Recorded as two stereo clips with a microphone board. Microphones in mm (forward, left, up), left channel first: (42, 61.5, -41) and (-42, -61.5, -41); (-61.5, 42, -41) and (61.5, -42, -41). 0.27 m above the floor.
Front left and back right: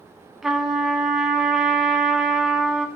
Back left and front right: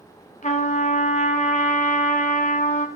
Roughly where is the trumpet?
Behind left.